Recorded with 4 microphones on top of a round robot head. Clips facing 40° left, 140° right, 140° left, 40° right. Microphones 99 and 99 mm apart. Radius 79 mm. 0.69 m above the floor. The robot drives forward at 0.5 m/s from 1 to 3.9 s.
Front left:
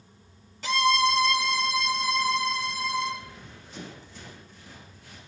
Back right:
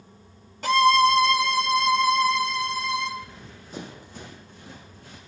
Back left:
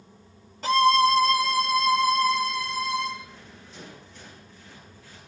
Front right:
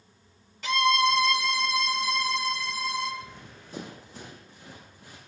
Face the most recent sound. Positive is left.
turn(degrees=-100)